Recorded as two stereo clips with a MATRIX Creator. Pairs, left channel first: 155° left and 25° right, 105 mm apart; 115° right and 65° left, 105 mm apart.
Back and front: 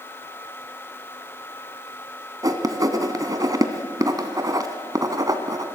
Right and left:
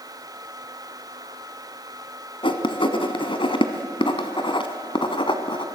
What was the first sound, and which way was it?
Writing, 75° right.